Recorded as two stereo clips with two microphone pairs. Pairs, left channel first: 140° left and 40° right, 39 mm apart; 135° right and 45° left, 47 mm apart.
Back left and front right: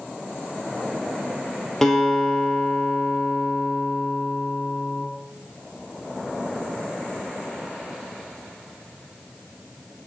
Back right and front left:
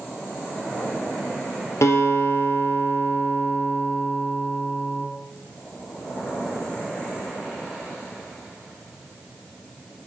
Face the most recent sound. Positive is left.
turn(degrees=-140)